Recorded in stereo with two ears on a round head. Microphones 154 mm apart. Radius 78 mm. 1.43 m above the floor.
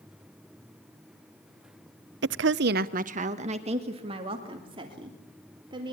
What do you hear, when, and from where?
2.2 s a woman speaking: 65° right (ahead or behind), 0.6 m; by 5.9 s 30° right (ahead or behind), 4.5 m